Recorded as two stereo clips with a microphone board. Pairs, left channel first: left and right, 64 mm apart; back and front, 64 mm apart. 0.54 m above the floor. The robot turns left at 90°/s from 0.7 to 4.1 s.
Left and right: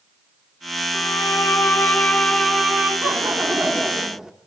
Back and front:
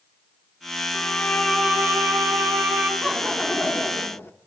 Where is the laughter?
70° right, 1.4 m; by 4.3 s 170° right, 1.4 m.